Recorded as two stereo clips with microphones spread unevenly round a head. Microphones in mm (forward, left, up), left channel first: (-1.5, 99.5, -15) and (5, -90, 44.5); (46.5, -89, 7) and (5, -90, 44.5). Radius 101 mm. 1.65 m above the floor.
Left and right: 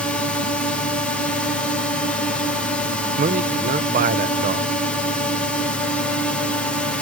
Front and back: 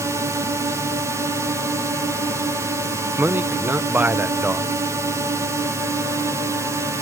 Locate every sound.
0.0 s a drone: 120° left
3.2 s a man speaking: 135° right